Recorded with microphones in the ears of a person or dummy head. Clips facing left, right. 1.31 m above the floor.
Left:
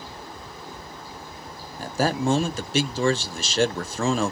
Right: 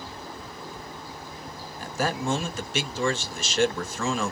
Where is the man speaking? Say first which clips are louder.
Left 4 dB; 35° left (ahead or behind), 0.7 m.